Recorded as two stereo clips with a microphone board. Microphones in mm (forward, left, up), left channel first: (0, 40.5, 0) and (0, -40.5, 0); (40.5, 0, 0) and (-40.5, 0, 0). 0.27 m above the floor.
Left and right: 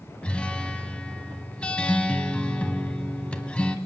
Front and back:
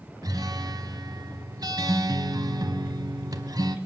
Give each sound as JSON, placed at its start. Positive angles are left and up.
{"t": 0.2, "sound": "a guitar", "azimuth_deg": 165, "distance_m": 1.1}